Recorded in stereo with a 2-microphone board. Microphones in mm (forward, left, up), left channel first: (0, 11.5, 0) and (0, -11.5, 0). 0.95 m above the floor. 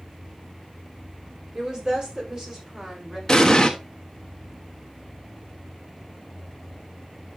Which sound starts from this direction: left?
An explosion, at 3.3 s.